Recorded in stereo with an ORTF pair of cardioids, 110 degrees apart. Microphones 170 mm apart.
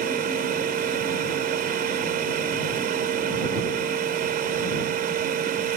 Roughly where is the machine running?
Ahead right.